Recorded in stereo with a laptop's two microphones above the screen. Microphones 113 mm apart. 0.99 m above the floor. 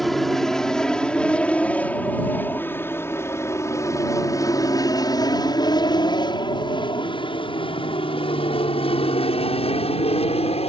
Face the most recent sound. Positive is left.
turn(degrees=65)  # may be behind; listen again after turning